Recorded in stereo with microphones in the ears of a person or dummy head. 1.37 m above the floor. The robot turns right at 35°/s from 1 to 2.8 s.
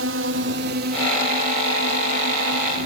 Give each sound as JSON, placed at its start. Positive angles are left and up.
{"t": 0.0, "sound": "a drone", "side_deg": -65}